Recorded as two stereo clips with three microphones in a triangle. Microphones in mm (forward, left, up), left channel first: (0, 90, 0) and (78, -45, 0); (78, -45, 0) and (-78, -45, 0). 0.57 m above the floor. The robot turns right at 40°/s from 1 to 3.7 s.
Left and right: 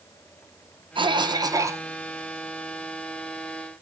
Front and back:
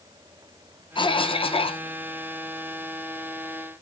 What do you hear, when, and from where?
0.9 s a cough: 30° right, 0.7 m; by 1.8 s 5° left, 0.7 m